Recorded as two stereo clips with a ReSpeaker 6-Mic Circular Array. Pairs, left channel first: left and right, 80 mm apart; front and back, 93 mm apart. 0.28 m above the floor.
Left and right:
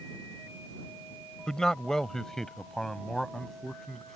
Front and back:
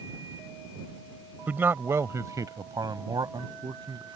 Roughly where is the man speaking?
Behind.